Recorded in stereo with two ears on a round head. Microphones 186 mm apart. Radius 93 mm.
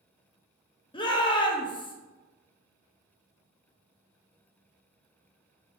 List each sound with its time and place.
0.9 s a shout: 25° left (ahead or behind), 0.5 m